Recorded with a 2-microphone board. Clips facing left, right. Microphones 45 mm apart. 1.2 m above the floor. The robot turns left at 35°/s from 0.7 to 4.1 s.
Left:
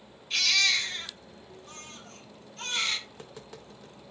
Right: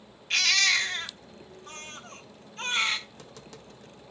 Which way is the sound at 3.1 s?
25° left (ahead or behind).